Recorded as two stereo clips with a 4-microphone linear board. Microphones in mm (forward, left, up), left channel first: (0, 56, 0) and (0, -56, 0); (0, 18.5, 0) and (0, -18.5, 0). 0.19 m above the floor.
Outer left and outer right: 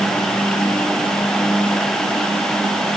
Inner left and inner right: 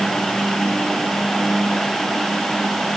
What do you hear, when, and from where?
Only background noise.